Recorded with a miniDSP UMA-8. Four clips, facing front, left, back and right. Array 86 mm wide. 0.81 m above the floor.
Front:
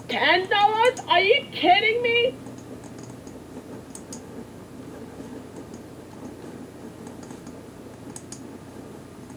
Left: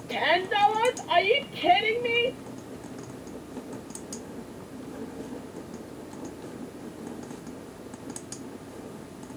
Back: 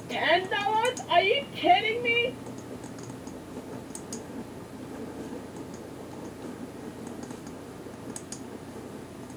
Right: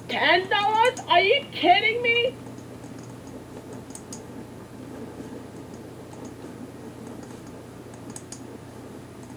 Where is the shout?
40° right, 1.3 m.